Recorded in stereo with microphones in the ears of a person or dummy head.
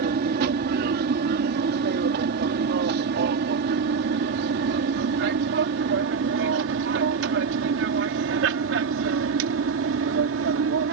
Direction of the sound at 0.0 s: 55° right (ahead or behind).